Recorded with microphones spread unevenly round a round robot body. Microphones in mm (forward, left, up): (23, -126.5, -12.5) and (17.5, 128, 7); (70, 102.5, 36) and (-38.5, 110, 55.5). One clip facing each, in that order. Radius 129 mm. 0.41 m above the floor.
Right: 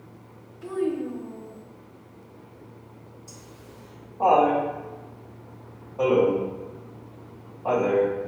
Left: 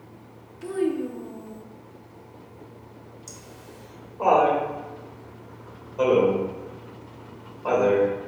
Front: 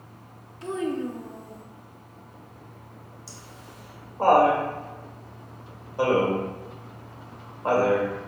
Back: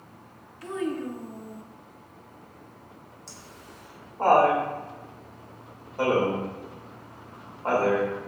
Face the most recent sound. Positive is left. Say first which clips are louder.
# left 2 dB, front 1 dB
turn(degrees=70)